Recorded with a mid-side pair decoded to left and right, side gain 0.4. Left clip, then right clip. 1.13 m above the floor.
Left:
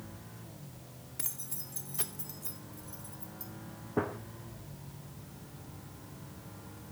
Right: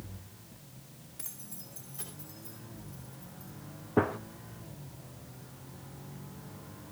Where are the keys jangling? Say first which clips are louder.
Left 5 dB; 50° left, 2 m; by 3.5 s 75° left, 3.5 m.